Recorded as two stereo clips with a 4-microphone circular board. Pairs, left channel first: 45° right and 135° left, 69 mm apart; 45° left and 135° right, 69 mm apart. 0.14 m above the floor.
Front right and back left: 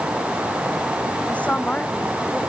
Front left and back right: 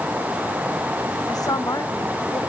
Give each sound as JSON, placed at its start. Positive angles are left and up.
{"t": 1.3, "sound": "a woman speaking", "azimuth_deg": 25}